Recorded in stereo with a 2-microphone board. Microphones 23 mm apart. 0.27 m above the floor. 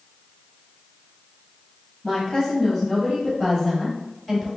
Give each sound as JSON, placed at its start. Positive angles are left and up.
{"t": 2.0, "sound": "a woman speaking", "side_deg": 25, "distance_m": 1.9}